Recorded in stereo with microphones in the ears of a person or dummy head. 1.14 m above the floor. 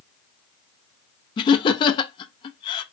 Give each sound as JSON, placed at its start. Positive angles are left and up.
{"t": 1.4, "sound": "laughter", "side_deg": 25, "distance_m": 0.5}